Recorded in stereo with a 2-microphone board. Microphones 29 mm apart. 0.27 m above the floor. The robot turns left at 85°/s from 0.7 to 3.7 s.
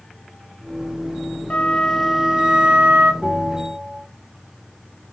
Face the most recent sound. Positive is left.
turn(degrees=150)